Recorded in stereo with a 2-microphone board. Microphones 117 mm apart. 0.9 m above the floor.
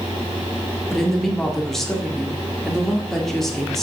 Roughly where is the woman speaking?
Centre.